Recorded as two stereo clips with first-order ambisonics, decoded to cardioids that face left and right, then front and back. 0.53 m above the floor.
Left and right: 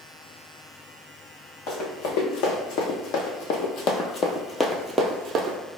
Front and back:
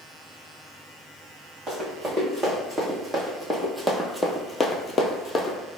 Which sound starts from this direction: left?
Running footsteps, at 1.7 s.